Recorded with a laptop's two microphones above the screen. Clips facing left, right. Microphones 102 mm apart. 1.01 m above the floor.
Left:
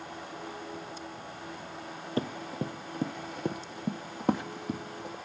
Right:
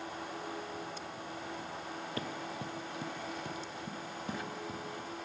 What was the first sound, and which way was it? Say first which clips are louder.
Running footsteps: left 10 dB; 30° left (ahead or behind).